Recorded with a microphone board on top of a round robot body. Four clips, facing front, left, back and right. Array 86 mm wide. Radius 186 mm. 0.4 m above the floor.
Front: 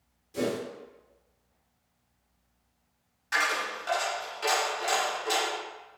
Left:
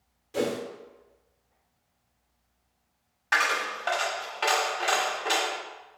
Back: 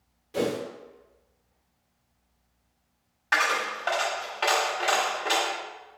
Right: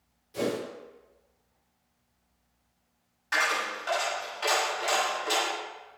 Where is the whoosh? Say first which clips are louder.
Left 2 dB, back 3 dB; 140° left, 1.3 m.